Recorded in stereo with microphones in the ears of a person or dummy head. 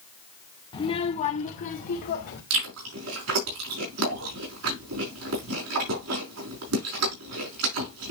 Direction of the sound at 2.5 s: 75° right (ahead or behind).